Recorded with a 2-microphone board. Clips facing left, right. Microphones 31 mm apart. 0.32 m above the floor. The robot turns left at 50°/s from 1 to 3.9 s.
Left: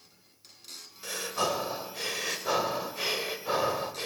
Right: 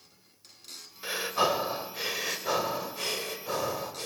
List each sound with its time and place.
1.0 s breathing: 25° right (ahead or behind), 1.2 m; by 4.0 s 25° left (ahead or behind), 1.2 m